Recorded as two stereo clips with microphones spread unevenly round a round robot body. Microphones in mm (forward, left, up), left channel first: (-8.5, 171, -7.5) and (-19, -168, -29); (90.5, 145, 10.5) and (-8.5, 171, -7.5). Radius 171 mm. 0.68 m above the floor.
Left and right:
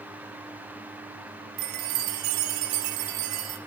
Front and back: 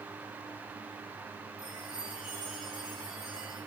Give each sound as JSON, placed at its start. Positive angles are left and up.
{"t": 1.6, "sound": "a chime", "azimuth_deg": -95, "distance_m": 0.6}